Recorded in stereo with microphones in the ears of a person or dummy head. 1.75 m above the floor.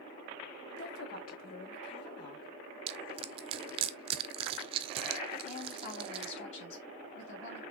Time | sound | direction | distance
0.7 | a woman speaking | 60° left (ahead or behind) | 1.3 m
2.9 | crushing | 30° right (ahead or behind) | 0.5 m
5.4 | a woman speaking | 40° left (ahead or behind) | 3 m